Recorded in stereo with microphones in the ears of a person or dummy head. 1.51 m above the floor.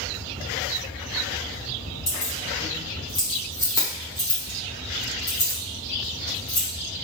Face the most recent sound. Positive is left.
turn(degrees=15)  # may be behind; listen again after turning